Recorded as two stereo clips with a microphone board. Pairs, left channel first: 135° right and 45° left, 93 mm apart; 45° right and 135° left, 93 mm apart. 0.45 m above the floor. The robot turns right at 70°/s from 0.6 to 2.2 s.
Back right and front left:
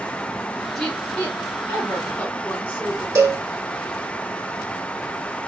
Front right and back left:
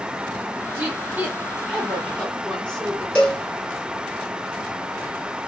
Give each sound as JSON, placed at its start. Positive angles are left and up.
{"t": 0.8, "sound": "a woman speaking", "azimuth_deg": 145, "distance_m": 1.3}
{"t": 3.1, "sound": "a cowbell", "azimuth_deg": 25, "distance_m": 1.7}